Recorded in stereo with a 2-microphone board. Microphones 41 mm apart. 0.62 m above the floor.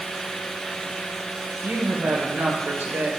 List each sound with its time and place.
1.6 s a woman speaking: 75° right (ahead or behind), 2 m; by 3.1 s 65° right (ahead or behind), 1.9 m